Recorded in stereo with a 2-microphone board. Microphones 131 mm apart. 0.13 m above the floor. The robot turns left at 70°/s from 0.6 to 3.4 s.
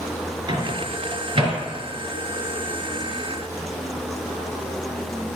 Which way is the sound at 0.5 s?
35° right (ahead or behind).